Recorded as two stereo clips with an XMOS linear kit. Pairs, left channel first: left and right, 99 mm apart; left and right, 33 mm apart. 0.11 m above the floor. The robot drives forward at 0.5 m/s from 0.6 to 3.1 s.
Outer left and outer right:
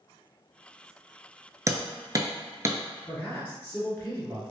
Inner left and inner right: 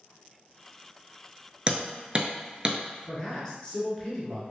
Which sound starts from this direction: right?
Hammering, at 1.7 s.